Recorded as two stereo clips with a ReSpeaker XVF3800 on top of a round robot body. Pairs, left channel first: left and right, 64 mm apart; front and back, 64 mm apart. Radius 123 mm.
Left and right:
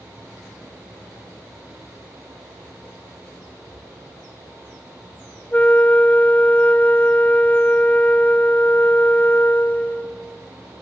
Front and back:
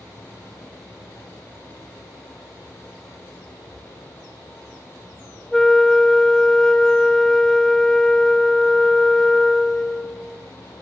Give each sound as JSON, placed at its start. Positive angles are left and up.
{"t": 3.6, "sound": "a cupboard door", "azimuth_deg": 75, "distance_m": 9.0}
{"t": 5.5, "sound": "a flute", "azimuth_deg": 75, "distance_m": 1.0}